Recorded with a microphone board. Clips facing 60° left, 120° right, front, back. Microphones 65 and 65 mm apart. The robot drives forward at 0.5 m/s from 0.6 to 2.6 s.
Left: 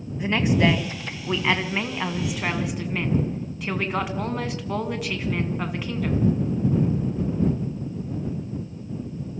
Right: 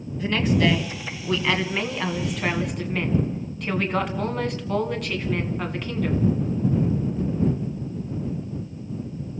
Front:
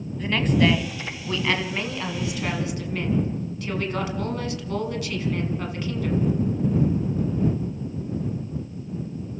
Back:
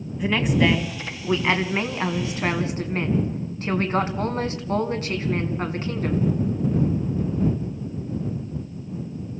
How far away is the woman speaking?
About 1.7 m.